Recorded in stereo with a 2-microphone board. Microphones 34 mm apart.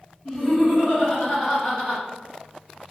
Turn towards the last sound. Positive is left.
turn(degrees=-25)  # may be behind; listen again after turning